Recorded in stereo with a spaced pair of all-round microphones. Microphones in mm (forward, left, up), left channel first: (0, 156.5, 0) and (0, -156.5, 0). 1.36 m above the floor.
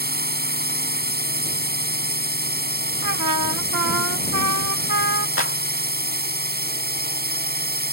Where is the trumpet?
75° right (ahead or behind).